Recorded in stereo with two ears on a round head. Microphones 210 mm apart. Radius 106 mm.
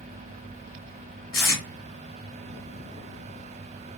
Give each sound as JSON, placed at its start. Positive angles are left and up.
{"t": 1.3, "sound": "tape being pulled", "side_deg": 65, "distance_m": 1.7}